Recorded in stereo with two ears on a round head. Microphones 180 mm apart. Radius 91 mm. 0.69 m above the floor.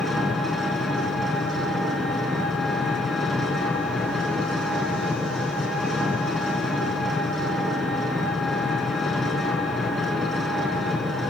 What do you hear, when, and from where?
0.0 s an engine running: centre (ahead or behind), 6 m